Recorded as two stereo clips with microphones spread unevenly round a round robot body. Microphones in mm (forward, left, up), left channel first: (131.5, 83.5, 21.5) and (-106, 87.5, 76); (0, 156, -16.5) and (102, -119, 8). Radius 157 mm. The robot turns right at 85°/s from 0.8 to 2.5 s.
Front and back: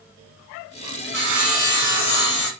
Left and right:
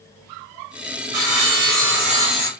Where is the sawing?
85° right, 1.7 m; by 2.5 s 35° left, 1.7 m.